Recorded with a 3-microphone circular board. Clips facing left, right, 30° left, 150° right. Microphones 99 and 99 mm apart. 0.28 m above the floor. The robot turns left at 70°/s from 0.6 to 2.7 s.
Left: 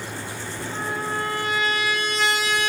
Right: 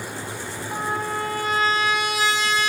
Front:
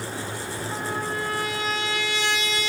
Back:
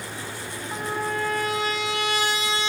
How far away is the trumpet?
About 1.8 m.